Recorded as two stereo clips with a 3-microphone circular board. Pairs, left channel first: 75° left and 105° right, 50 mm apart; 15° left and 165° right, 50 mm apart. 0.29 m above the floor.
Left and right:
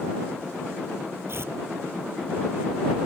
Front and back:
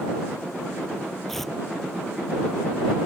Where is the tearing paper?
70° right.